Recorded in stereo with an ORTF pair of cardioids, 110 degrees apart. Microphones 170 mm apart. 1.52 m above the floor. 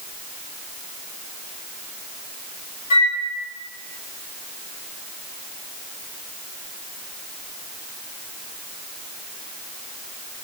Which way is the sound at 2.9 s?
50° left.